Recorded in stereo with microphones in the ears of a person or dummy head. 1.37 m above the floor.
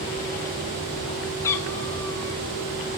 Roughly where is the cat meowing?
Centre.